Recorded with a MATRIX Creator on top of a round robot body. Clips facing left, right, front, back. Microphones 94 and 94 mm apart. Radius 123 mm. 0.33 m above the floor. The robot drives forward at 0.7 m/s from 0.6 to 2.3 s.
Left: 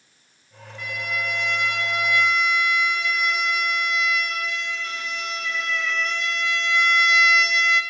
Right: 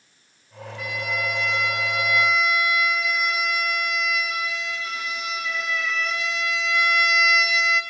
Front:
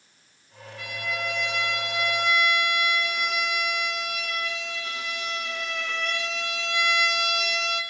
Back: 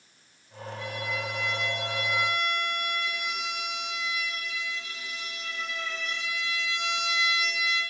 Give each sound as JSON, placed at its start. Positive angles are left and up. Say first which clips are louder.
{"t": 0.8, "sound": "a violin", "louder": "right 1 dB, front 2 dB", "azimuth_deg": -5, "distance_m": 4.0}